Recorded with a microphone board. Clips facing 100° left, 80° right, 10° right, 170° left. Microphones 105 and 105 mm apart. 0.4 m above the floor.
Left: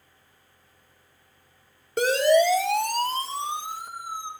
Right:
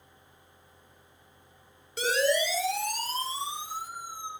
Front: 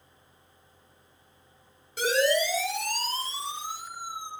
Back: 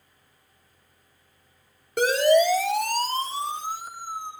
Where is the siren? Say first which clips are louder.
Left 7 dB, back 6 dB; 135° left, 9.5 m; by 4.3 s 125° left, 10.5 m.